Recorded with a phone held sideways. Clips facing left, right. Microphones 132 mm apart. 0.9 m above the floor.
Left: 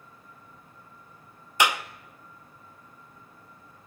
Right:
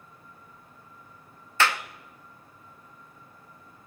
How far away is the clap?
About 0.6 m.